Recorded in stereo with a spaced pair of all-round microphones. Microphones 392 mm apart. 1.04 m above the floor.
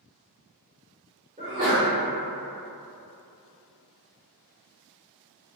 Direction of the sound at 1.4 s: 20° right (ahead or behind).